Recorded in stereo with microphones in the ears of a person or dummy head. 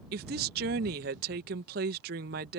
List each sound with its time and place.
0.1 s a woman speaking: 55° right (ahead or behind)